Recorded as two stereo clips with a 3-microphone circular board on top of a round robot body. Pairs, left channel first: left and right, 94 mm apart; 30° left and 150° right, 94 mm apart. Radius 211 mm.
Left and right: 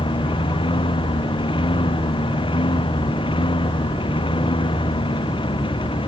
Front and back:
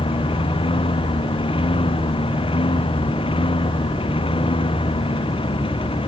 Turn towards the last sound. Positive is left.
turn(degrees=55)